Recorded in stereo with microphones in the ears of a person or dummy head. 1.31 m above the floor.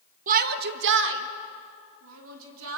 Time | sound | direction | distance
0.3 | a shout | 45° right (ahead or behind) | 1.3 m